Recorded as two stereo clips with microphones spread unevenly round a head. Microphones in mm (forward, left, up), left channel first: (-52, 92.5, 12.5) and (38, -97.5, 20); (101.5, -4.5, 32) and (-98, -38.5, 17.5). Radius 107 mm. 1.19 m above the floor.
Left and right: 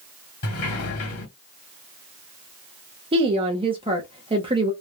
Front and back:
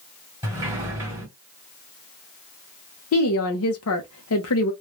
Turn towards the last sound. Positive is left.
turn(degrees=0)